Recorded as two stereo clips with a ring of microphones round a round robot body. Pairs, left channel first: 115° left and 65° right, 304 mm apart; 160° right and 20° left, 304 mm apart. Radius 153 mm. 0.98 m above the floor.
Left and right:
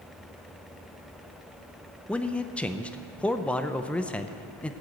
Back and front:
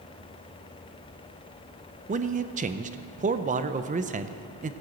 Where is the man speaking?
35° left, 0.5 m.